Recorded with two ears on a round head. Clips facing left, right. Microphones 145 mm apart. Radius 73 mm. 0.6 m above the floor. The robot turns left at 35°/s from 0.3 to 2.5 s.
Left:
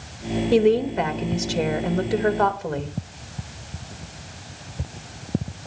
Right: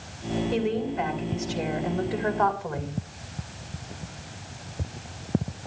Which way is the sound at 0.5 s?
115° left.